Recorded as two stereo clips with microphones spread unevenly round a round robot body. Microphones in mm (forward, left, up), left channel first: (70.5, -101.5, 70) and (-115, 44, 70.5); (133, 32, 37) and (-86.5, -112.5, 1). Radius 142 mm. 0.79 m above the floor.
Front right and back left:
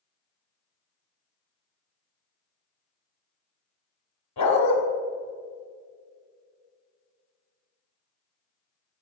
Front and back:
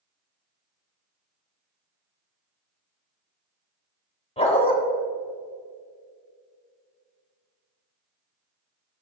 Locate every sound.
4.4 s a dog barking: 35° right, 1.7 m